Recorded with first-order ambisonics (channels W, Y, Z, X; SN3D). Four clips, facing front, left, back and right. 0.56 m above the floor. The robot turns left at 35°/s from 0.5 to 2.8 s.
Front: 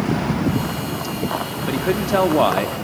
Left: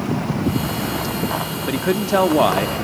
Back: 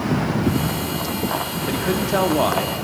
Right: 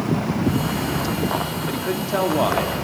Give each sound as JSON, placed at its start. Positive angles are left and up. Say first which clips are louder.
{"t": 1.7, "sound": "a man speaking", "louder": "left 8 dB, front 2 dB", "azimuth_deg": 80, "distance_m": 0.6}